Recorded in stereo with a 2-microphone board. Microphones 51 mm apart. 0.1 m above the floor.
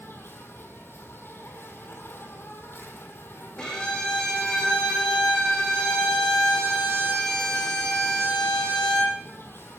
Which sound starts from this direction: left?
An insect, at 0.0 s.